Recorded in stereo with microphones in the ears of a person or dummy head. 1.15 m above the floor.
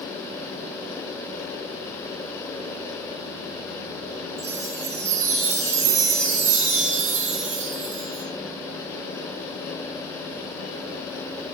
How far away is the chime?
About 5 m.